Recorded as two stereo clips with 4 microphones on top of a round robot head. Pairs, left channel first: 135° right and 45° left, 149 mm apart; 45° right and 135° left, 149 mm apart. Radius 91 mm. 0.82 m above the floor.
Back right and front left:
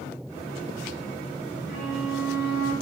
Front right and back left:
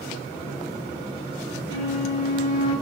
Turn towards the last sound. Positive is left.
turn(degrees=-155)